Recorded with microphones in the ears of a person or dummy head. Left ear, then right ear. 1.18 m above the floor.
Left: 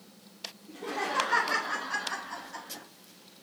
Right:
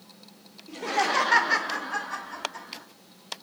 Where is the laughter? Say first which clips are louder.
Right 8 dB; 70° right (ahead or behind), 0.7 m; by 2.9 s 40° left (ahead or behind), 1.0 m.